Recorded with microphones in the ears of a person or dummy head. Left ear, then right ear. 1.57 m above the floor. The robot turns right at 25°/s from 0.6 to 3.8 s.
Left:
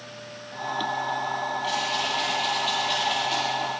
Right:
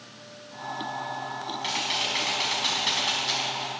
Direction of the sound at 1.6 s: 135° right.